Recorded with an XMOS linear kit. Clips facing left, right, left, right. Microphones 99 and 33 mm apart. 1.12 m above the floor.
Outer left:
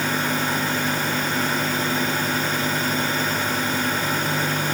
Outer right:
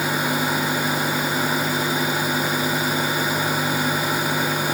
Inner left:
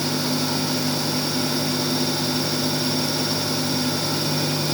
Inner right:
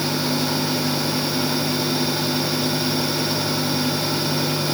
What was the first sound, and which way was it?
Only background noise.